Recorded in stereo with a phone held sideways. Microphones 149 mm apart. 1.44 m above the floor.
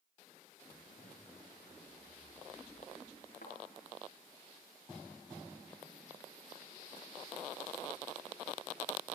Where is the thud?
75° left (ahead or behind), 5.5 m.